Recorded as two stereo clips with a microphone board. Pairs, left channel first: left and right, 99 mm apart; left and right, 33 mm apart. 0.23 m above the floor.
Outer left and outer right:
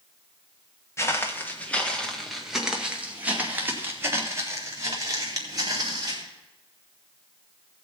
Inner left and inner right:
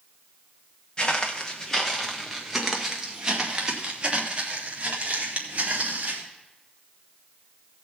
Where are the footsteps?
30° left (ahead or behind), 2 m; by 6.2 s 40° right (ahead or behind), 4 m.